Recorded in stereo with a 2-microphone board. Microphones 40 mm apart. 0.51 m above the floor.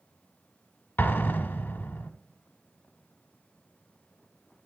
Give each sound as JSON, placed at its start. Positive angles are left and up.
{"t": 1.0, "sound": "an explosion", "side_deg": 70, "distance_m": 0.8}